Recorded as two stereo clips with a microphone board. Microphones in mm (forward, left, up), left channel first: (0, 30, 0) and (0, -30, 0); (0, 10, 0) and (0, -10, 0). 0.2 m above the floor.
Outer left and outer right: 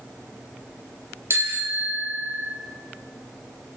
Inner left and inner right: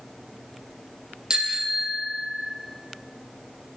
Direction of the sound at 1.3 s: 45° right (ahead or behind).